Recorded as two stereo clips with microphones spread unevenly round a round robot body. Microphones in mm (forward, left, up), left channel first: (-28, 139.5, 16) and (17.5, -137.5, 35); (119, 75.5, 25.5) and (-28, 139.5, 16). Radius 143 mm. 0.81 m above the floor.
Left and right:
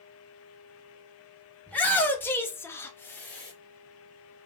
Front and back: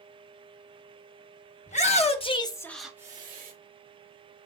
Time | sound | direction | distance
1.7 | a shout | 15° left | 1.5 m